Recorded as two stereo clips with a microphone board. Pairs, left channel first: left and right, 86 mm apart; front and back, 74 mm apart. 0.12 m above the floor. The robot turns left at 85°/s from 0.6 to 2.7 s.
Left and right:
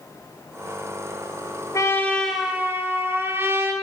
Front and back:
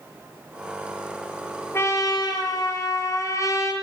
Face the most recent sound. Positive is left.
turn(degrees=-30)